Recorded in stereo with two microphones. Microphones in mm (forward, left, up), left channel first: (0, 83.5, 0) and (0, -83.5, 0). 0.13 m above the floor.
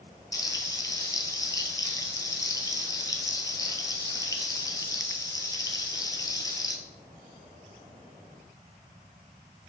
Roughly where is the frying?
Left.